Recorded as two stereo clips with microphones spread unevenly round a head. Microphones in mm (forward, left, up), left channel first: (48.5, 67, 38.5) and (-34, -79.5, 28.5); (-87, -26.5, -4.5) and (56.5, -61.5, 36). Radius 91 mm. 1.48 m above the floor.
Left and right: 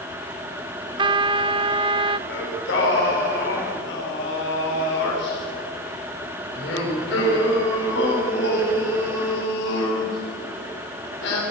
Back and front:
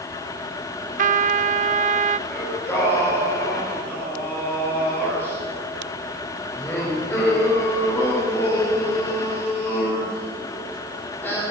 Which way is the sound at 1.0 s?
55° right.